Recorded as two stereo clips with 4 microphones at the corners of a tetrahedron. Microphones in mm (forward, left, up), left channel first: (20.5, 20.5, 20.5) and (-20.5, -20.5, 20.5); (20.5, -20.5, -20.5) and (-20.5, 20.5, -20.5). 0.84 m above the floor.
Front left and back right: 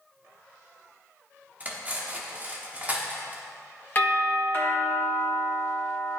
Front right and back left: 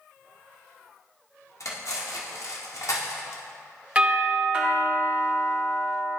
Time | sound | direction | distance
1.6 | cutlery clinking | 75° right | 0.9 m
4.0 | a doorbell | 75° left | 1.5 m